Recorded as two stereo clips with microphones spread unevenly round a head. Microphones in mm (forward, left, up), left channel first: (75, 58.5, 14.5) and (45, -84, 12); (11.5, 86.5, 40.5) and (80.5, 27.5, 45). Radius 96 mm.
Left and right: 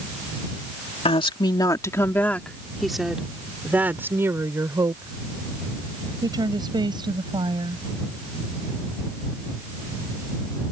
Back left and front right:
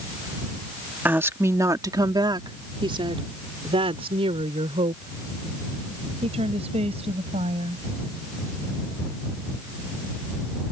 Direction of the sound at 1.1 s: 30° left.